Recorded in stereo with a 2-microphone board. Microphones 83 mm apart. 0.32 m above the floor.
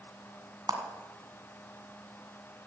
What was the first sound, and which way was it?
A clap, 55° right (ahead or behind).